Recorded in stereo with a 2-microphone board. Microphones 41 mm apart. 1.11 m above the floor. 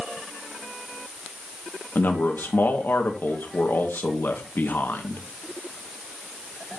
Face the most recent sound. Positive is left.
turn(degrees=55)  # may be behind; listen again after turning